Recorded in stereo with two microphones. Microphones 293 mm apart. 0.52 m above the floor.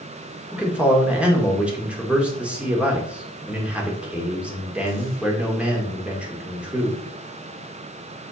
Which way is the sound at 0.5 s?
5° right (ahead or behind).